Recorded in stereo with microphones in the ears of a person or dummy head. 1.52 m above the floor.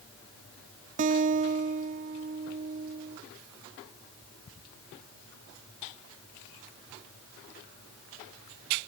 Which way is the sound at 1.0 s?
40° right (ahead or behind).